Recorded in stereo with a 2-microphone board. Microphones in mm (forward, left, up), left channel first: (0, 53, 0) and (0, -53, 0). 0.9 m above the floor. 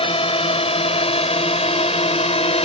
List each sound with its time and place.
0.0 s a drone: 65° left (ahead or behind); by 2.7 s 80° left